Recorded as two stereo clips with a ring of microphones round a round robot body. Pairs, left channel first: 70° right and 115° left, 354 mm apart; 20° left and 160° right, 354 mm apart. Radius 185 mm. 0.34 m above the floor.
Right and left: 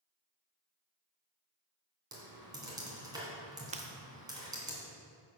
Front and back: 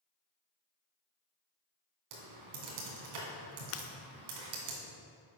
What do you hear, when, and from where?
2.1 s typing on a keyboard: 170° right, 2.5 m
3.7 s breaking glass: 50° left, 0.8 m